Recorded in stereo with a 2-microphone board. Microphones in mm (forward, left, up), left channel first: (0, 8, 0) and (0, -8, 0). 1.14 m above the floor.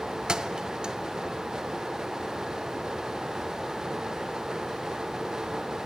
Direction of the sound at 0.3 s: 50° right (ahead or behind).